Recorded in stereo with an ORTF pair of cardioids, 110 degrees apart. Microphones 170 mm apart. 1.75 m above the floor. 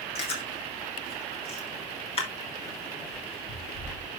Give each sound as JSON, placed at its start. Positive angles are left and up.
{"t": 0.1, "sound": "chewing", "azimuth_deg": 35, "distance_m": 3.0}